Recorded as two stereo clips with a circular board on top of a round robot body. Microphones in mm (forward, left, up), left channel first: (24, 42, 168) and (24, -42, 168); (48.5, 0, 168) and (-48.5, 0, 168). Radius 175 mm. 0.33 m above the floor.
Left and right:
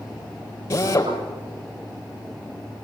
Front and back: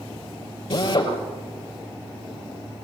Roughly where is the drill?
Ahead left.